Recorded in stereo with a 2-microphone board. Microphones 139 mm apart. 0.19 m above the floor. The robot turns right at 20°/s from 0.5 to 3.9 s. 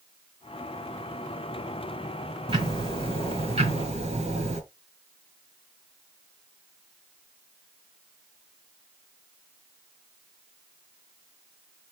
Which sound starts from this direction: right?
Ticking, at 2.5 s.